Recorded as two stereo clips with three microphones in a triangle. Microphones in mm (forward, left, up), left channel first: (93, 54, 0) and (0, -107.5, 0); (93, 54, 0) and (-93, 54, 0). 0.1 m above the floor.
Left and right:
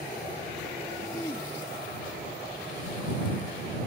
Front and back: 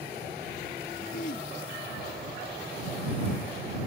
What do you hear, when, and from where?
1.1 s throat clearing: 10° right